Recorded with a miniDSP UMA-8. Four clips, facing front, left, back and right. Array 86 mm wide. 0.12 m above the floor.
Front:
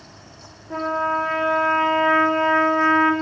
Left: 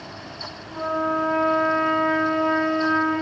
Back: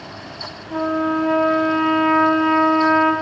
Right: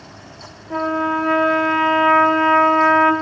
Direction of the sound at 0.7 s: 65° right.